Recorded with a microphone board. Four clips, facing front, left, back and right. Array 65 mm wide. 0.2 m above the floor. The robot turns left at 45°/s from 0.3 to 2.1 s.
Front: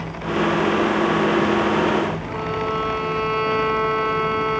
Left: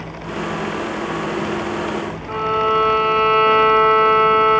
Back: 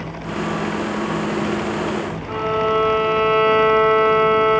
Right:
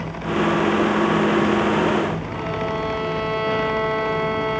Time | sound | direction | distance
2.3 | a violin | 115° left | 2 m